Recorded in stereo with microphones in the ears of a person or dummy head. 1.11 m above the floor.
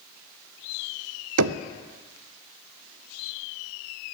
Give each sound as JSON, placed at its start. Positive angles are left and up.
{"t": 1.4, "sound": "knocking", "side_deg": -90, "distance_m": 0.7}